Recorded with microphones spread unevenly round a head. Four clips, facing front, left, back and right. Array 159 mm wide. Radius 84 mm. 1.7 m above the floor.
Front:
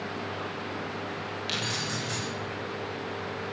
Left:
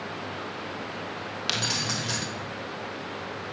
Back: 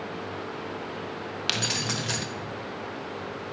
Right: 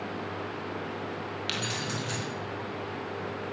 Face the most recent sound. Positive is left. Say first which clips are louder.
# left 4 dB, back 4 dB
turn(degrees=155)